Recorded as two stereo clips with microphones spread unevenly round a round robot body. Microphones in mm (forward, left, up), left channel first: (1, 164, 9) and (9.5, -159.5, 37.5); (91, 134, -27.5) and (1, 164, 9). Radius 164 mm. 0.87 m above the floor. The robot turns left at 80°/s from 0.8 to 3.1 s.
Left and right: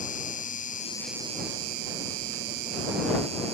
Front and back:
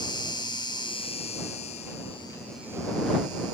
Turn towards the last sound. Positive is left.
turn(degrees=-160)